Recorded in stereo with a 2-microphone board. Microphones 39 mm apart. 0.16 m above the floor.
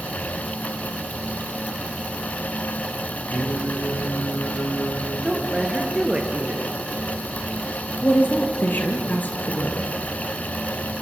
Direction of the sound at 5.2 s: 15° right (ahead or behind).